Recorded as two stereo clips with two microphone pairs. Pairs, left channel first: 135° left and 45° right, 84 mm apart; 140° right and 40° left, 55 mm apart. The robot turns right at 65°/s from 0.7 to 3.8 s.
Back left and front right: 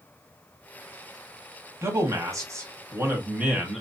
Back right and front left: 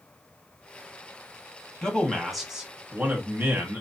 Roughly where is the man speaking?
Right.